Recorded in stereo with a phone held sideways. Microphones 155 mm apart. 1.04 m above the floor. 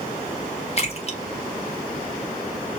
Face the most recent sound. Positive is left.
turn(degrees=45)  # may be behind; listen again after turning